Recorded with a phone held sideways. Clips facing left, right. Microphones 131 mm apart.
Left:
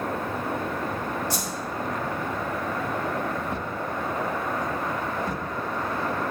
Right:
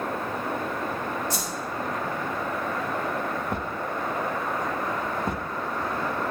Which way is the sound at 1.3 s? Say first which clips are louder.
Left 1 dB; 80° left.